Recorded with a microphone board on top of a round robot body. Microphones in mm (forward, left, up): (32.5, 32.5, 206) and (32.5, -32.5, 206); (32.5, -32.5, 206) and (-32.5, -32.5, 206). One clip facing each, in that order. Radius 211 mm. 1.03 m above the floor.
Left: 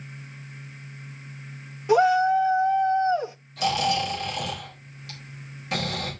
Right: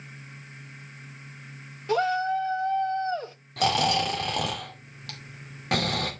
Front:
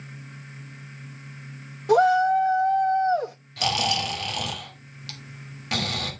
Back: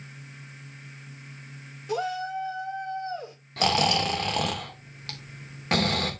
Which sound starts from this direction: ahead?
A shout, at 1.9 s.